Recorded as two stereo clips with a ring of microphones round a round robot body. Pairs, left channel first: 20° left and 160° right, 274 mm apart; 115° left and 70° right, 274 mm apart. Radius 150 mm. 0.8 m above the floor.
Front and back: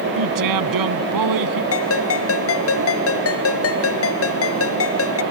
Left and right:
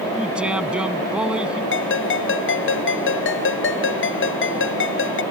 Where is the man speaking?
155° right.